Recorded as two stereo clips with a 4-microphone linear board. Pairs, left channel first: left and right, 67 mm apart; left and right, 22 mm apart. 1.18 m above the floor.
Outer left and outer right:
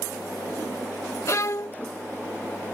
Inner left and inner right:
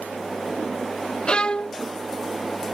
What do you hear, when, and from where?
1.3 s a violin: 45° left (ahead or behind)